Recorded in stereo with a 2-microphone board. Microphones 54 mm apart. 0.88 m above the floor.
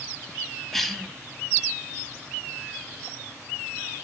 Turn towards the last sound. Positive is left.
turn(degrees=5)  # may be behind; listen again after turning